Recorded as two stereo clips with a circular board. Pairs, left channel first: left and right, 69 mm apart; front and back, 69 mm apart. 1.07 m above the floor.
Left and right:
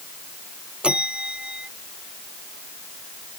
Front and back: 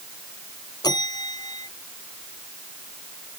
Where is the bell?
15° right.